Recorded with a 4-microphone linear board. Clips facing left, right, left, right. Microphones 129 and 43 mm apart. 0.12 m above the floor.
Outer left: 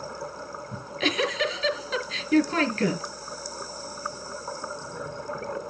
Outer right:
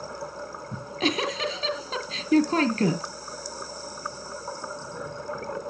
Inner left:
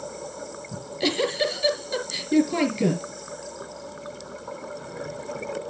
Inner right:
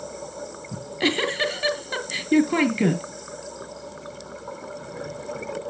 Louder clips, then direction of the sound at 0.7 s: Outer right 1 dB, inner right 2 dB; 40° right (ahead or behind).